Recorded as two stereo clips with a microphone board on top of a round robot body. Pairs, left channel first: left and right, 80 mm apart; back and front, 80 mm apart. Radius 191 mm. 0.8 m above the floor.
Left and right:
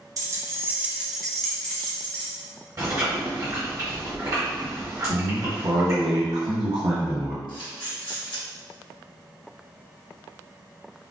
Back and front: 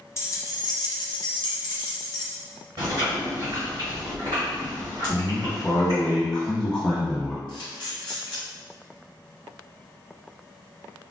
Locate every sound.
0.2 s keys jangling: 125° right, 0.8 m; by 2.3 s 150° left, 1.2 m
2.8 s chewing: 40° right, 1.2 m
5.1 s a man speaking: 105° right, 1.4 m
7.5 s a camera shutter: 100° left, 1.9 m